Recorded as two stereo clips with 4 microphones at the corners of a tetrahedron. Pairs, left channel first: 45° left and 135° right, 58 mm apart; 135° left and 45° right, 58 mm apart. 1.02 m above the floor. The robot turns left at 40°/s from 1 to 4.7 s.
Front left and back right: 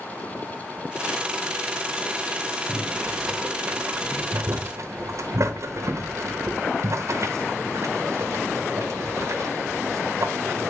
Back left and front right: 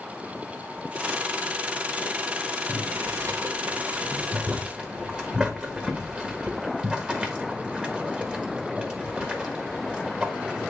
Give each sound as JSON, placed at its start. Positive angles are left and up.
{"t": 2.7, "sound": "boiling", "azimuth_deg": -35, "distance_m": 1.4}